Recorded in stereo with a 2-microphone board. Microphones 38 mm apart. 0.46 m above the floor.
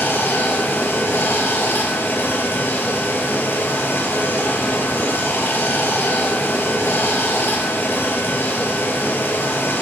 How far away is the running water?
About 1.6 m.